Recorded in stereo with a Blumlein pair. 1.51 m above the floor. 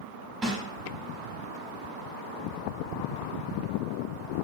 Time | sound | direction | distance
0.4 | a snare drum | 20° right | 1.6 m